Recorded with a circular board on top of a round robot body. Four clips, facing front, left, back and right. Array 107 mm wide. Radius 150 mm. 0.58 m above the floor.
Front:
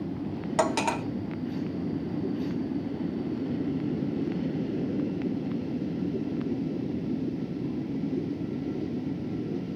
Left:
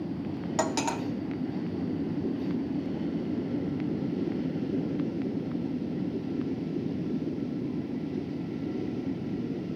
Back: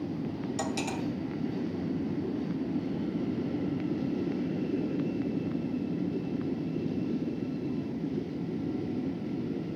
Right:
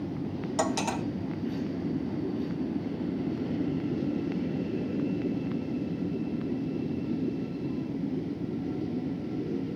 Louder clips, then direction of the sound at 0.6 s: Even, front 9 dB; 20° left.